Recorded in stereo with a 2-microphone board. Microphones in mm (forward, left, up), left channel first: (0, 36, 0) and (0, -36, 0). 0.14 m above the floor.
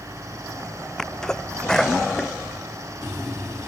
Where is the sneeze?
5° left (ahead or behind).